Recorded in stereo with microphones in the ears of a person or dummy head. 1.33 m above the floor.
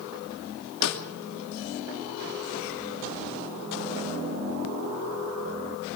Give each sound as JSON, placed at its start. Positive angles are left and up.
{"t": 0.8, "sound": "a snare drum", "side_deg": 80, "distance_m": 2.5}